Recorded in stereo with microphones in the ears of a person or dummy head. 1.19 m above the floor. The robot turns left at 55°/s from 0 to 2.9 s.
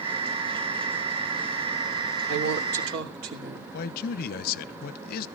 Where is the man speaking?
55° left (ahead or behind), 0.8 m.